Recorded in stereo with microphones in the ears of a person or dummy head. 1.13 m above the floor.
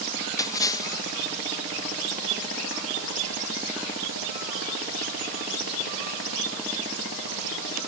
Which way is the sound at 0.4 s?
20° left (ahead or behind).